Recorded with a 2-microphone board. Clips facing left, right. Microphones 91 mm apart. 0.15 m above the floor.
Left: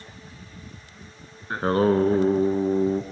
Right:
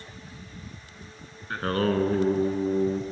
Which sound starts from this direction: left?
Singing, at 1.5 s.